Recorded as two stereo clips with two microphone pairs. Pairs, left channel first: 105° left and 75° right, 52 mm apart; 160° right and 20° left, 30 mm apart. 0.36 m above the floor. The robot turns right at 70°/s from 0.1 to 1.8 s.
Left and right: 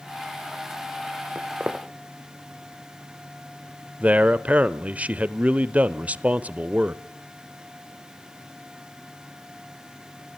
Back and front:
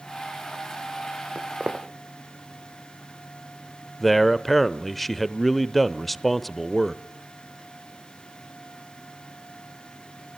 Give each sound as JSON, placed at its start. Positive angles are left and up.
{"t": 1.4, "sound": "footsteps", "azimuth_deg": -35, "distance_m": 1.5}
{"t": 4.0, "sound": "a man speaking", "azimuth_deg": -75, "distance_m": 0.8}